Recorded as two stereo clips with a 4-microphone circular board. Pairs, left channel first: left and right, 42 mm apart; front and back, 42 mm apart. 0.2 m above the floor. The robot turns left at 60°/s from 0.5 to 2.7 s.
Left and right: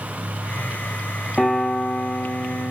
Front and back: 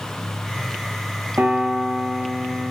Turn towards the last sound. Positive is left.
turn(degrees=90)